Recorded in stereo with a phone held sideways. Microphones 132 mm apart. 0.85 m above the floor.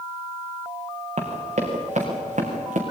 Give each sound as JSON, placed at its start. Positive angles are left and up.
{"t": 1.2, "sound": "running footsteps", "side_deg": -60, "distance_m": 4.5}